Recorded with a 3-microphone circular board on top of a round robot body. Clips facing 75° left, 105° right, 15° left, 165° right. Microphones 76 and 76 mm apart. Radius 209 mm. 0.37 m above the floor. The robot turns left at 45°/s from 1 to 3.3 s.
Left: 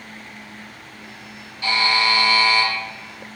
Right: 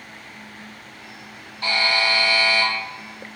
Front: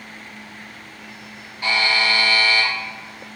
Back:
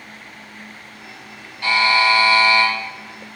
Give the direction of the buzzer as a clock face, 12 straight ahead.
2 o'clock.